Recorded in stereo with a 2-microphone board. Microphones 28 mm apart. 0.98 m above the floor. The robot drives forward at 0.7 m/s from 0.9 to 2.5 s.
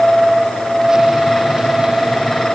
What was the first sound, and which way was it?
Only background noise.